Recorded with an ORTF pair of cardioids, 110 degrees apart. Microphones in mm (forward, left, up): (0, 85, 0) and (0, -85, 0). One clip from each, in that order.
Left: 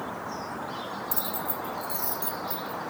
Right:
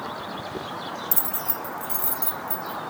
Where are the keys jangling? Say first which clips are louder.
Right 1 dB; 30° right, 0.6 m; by 2.8 s 25° right, 2 m.